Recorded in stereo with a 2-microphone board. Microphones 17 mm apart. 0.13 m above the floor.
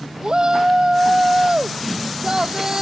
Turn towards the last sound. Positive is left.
turn(degrees=-40)  # may be behind; listen again after turning